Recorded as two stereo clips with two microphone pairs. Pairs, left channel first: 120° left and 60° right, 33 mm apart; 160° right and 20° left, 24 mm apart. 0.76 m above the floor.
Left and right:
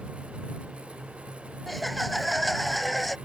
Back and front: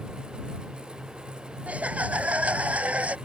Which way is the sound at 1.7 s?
30° left.